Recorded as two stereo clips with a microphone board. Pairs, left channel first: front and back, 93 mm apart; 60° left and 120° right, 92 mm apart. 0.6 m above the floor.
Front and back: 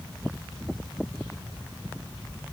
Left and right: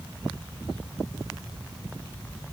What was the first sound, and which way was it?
Only background noise.